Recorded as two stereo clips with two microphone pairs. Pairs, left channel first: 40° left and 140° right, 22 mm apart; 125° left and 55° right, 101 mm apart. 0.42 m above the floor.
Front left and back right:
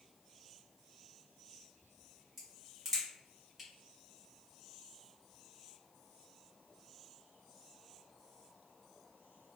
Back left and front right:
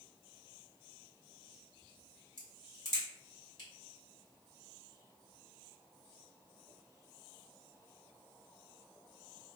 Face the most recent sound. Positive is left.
turn(degrees=140)